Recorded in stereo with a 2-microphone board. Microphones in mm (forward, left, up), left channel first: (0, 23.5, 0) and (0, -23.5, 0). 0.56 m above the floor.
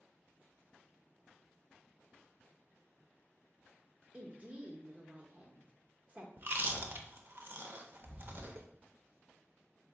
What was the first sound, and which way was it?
A woman speaking, 30° right (ahead or behind).